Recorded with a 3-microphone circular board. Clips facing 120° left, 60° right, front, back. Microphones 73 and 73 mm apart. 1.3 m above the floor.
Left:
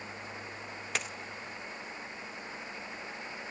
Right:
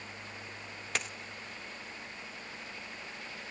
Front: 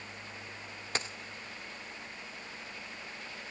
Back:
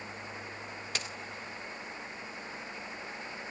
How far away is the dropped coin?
About 0.7 m.